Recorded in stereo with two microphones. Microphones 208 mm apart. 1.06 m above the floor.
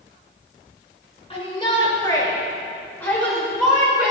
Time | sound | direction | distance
1.3 | a shout | 30° left (ahead or behind) | 5.5 m